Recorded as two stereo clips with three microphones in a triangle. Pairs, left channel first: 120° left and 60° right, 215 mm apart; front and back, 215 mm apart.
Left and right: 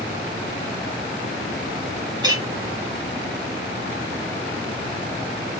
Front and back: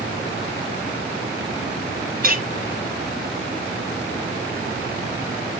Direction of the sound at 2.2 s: 130° right.